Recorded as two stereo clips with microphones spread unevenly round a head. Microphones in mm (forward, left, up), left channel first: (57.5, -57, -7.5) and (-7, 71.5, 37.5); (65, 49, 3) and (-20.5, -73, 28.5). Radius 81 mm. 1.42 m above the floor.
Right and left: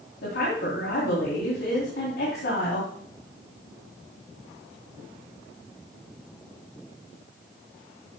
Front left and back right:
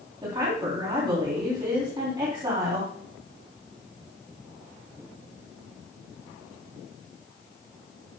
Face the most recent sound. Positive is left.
turn(degrees=-65)